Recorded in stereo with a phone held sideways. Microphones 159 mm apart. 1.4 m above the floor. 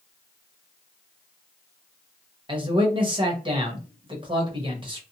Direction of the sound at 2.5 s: 30° right (ahead or behind).